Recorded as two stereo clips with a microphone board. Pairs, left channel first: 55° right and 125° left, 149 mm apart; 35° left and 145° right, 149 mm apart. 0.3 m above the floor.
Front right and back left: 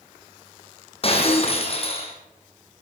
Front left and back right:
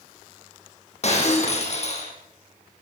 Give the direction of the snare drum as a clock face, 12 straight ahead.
No snare drum in this recording.